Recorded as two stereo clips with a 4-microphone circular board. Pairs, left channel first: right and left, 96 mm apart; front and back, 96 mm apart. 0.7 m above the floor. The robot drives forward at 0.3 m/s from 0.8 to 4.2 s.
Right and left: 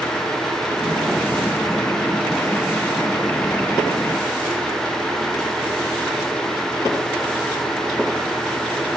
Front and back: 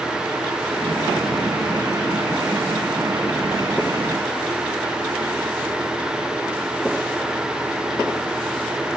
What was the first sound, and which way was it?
Only background noise.